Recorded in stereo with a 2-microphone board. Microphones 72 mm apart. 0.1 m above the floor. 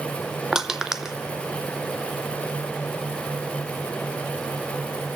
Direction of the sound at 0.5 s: 10° right (ahead or behind).